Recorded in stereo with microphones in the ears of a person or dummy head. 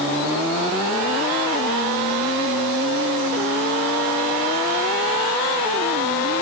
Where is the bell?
No bell in this recording.